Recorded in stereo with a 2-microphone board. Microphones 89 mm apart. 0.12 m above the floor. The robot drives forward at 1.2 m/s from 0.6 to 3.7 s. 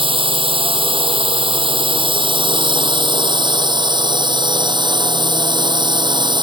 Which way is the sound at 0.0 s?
70° right (ahead or behind).